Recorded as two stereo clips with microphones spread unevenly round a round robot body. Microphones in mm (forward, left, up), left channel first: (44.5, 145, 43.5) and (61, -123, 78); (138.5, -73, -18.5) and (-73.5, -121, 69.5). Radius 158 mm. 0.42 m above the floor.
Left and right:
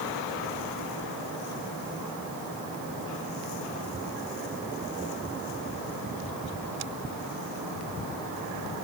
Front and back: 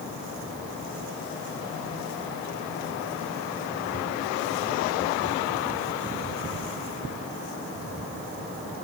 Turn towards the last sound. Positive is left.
No sound to turn to.